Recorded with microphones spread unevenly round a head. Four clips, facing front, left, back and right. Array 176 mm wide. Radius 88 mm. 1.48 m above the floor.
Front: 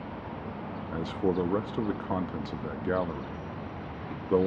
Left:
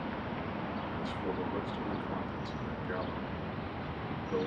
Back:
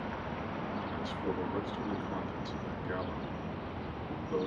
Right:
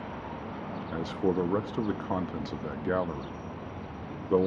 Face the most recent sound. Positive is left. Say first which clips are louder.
# right 12 dB, front 12 dB
turn(degrees=-45)